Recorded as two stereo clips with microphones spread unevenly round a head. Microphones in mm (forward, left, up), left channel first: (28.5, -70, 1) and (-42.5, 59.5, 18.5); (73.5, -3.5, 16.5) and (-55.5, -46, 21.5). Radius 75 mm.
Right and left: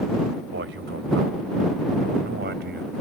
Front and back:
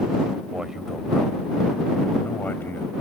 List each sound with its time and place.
0.5 s a man speaking: 115° left; by 2.9 s 95° left